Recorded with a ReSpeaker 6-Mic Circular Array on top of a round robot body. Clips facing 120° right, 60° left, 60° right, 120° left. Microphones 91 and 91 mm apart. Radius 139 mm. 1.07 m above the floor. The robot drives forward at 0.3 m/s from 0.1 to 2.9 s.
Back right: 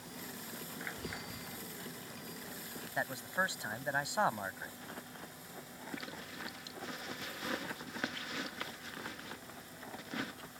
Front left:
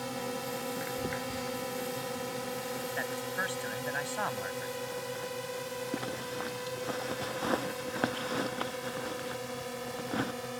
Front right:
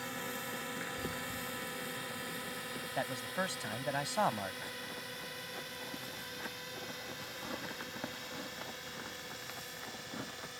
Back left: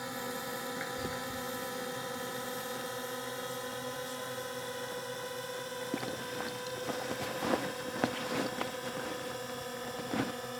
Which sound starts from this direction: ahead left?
A drone, at 0.0 s.